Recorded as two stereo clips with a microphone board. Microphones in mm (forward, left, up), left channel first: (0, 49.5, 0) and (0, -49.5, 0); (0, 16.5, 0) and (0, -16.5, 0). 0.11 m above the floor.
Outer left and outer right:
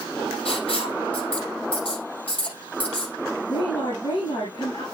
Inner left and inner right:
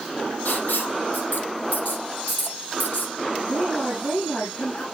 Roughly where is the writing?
Left.